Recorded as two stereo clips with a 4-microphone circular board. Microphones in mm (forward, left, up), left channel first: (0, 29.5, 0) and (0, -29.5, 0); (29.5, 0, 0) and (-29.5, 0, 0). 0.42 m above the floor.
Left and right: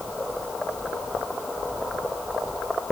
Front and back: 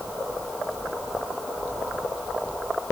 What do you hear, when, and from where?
Only background noise.